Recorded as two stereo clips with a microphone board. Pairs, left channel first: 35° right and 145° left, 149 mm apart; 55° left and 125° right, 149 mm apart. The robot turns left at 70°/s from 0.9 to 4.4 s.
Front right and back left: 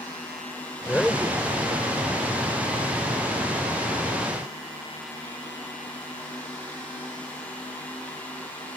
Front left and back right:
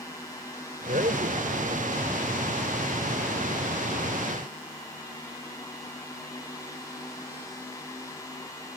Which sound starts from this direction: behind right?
A man speaking, at 0.9 s.